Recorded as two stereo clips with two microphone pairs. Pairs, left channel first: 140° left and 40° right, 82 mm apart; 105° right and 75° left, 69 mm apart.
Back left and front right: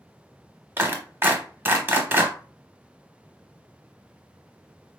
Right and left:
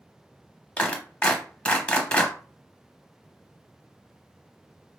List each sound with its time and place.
0.8 s a clap: 65° right, 0.8 m